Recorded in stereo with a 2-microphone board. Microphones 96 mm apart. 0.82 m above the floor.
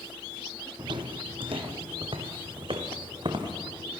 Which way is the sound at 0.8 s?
55° right (ahead or behind).